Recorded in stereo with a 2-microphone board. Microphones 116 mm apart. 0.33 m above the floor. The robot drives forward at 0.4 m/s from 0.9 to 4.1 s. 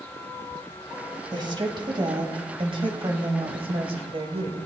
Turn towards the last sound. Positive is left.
turn(degrees=-50)  # may be behind; listen again after turning